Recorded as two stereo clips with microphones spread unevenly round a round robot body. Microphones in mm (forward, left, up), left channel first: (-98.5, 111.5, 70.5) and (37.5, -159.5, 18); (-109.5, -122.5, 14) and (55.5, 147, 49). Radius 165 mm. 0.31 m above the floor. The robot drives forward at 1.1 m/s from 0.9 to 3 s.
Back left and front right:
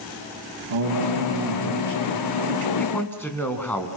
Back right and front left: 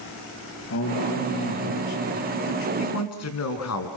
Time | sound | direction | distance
0.7 | a man speaking | 75° right | 7.5 m
2.8 | a man speaking | 155° right | 4 m